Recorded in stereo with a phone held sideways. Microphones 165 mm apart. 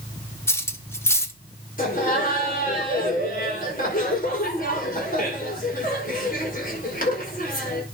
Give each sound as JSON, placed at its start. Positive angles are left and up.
{"t": 0.5, "sound": "cutlery clinking", "side_deg": 15, "distance_m": 1.2}
{"t": 1.8, "sound": "laughter", "side_deg": 55, "distance_m": 5.5}